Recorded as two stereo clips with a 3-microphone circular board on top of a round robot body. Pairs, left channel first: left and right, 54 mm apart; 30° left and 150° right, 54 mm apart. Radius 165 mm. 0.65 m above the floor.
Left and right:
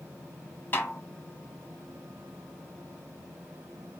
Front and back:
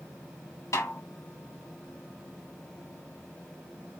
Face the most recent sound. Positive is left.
turn(degrees=40)